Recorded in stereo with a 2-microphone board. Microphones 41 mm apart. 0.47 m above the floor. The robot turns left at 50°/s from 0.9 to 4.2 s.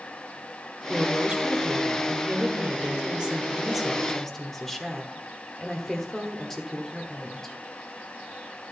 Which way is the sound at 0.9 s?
30° right.